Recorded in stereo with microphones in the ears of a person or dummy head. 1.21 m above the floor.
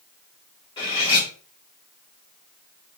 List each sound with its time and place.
0.8 s cutlery clinking: 25° left (ahead or behind), 2.0 m